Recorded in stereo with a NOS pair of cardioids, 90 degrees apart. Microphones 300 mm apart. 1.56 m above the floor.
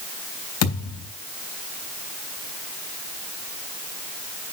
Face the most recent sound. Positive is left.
turn(degrees=60)